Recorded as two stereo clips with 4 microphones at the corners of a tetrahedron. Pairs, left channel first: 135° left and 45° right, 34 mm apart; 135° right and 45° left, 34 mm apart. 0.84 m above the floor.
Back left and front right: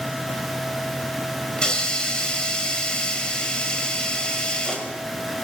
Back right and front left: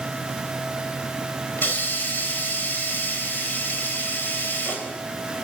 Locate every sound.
1.6 s a hiss: 160° right, 4 m